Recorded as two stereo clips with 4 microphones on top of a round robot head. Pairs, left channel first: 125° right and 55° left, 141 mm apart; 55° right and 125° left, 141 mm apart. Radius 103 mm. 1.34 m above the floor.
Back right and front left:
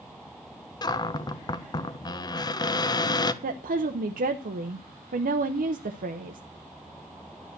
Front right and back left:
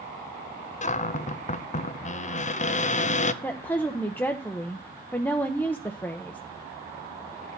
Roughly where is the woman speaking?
Ahead left.